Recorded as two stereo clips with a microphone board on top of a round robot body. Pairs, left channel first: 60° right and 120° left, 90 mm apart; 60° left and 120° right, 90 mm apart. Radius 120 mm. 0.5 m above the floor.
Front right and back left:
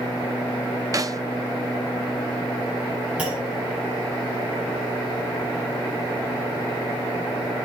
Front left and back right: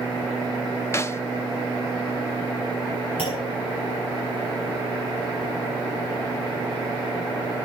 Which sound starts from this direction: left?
A snare drum, at 0.9 s.